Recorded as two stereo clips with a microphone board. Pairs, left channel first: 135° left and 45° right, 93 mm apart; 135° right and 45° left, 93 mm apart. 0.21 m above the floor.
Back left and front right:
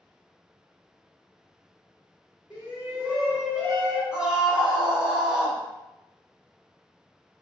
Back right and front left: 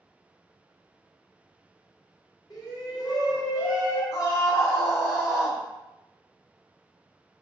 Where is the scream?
120° right, 1.4 m.